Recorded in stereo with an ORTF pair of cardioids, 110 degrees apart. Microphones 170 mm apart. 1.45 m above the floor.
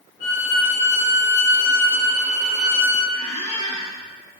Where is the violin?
55° left, 1.2 m.